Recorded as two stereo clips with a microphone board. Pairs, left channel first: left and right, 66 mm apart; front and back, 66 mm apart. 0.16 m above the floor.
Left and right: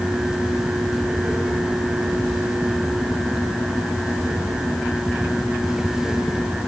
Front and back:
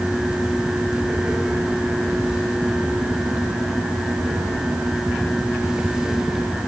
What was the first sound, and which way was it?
Only background noise.